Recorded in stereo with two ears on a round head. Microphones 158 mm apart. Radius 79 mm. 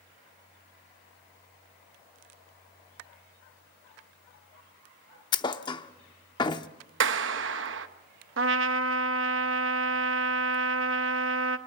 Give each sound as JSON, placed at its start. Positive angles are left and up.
{"t": 5.3, "sound": "a thud", "side_deg": 25, "distance_m": 0.7}
{"t": 7.0, "sound": "a clap", "side_deg": -75, "distance_m": 1.1}
{"t": 8.4, "sound": "a trumpet", "side_deg": -80, "distance_m": 1.1}